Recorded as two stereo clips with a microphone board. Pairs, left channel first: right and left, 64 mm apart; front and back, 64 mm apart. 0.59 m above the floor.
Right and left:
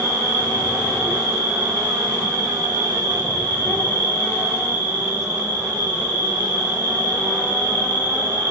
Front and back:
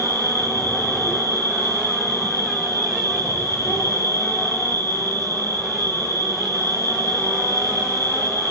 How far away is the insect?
About 3.5 m.